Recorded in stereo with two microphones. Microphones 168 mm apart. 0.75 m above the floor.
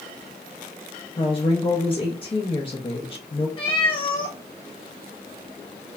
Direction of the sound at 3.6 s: 30° left (ahead or behind).